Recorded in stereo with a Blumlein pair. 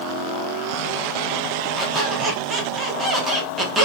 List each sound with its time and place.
1.8 s a squeak: 10° right, 1.1 m